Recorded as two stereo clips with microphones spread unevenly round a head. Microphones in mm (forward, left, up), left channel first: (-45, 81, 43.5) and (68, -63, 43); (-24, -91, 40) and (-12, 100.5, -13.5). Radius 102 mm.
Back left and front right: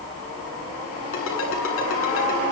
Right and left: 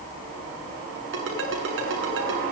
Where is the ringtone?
115° left, 7.5 m.